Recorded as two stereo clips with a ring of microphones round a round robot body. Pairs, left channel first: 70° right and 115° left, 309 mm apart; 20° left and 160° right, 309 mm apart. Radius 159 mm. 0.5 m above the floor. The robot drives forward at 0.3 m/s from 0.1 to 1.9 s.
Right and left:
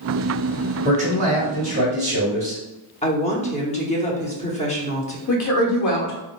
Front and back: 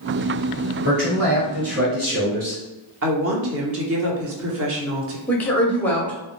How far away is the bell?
I don't hear a bell.